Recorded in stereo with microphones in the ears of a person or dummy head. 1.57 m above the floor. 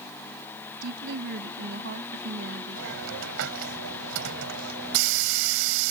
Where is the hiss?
75° right (ahead or behind).